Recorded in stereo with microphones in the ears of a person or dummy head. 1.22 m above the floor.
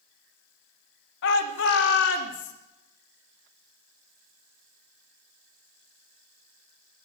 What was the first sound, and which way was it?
A shout, 65° left (ahead or behind).